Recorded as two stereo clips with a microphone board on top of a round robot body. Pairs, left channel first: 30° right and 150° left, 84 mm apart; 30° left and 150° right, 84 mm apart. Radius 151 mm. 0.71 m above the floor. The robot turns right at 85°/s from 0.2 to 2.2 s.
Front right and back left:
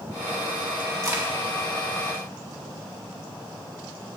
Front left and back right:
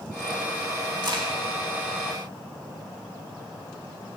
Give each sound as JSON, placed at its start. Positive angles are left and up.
{"t": 1.0, "sound": "a crack", "azimuth_deg": -170, "distance_m": 2.5}